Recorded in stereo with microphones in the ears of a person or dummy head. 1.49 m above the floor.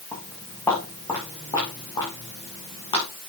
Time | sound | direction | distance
0.1 | footsteps | 15° left (ahead or behind) | 7 m